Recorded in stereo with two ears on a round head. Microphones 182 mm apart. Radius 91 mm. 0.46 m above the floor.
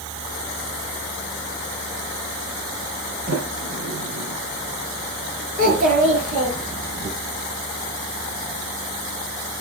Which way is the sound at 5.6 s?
40° right (ahead or behind).